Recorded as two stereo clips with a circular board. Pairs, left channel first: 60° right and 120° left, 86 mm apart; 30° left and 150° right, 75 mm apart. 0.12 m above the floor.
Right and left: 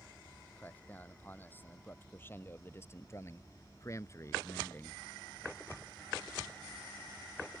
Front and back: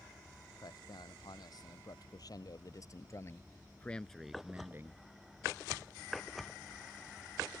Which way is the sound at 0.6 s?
10° left.